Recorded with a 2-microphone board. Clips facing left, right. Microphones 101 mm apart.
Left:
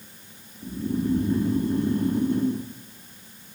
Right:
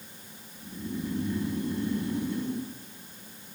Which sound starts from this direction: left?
Snoring, at 0.6 s.